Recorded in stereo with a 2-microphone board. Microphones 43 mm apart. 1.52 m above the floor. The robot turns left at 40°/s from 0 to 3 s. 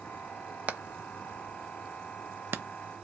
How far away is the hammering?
About 0.5 m.